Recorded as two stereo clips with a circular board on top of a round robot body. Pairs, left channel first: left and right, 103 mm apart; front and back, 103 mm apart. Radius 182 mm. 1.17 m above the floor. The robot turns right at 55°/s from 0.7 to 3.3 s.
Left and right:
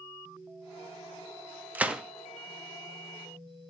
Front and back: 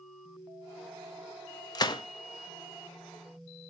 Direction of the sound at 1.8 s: 20° right.